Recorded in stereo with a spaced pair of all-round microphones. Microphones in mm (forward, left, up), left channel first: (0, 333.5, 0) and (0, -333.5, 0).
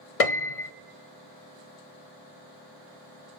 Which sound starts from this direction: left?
A piano, at 0.2 s.